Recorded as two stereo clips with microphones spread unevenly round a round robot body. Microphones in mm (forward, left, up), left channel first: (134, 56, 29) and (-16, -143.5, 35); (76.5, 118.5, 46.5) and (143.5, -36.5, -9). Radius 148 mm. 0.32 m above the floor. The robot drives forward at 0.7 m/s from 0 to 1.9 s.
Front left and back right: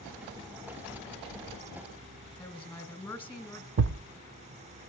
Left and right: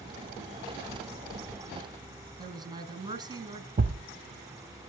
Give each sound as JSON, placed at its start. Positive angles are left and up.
{"t": 2.4, "sound": "a woman speaking", "azimuth_deg": -25, "distance_m": 1.5}
{"t": 3.8, "sound": "a thud", "azimuth_deg": -90, "distance_m": 0.6}